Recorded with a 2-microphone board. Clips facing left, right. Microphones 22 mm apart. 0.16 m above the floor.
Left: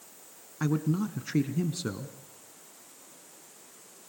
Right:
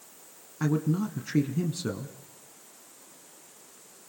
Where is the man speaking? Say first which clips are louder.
Right 1 dB; 5° left (ahead or behind), 1.3 m.